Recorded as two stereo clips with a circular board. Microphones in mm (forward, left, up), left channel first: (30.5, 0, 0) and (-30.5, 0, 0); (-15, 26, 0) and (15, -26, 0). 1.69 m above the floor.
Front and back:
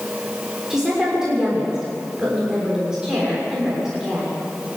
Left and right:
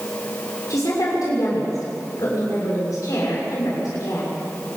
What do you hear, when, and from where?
0.7 s a woman speaking: 100° left, 6.5 m